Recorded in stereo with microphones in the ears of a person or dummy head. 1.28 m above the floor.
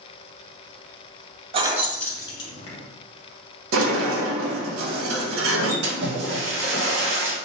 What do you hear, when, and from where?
1.5 s keys jangling: 35° right (ahead or behind), 0.5 m; by 2.8 s 40° left (ahead or behind), 1.1 m
3.7 s a sliding door: 70° right (ahead or behind), 0.7 m
5.8 s a splash: 75° right (ahead or behind), 0.8 m